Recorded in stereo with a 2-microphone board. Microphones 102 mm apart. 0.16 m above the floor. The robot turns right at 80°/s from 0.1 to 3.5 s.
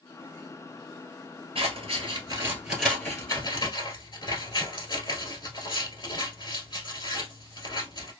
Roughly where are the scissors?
Right.